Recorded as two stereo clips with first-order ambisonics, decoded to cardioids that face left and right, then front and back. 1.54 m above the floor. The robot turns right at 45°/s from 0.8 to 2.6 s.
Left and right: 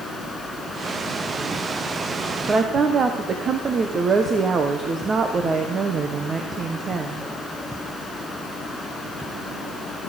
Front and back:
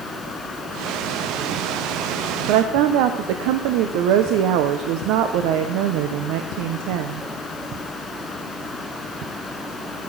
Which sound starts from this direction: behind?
A woman speaking, at 2.5 s.